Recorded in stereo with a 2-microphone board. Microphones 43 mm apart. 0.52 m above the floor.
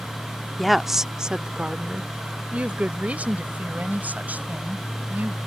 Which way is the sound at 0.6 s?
5° left (ahead or behind).